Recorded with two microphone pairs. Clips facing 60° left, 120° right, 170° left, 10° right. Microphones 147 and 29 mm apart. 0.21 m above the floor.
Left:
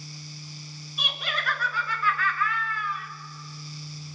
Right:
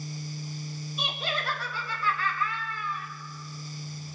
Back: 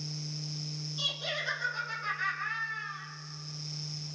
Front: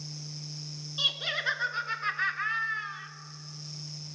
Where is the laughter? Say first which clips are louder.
Right 1 dB, front 5 dB; 60° right, 2 m.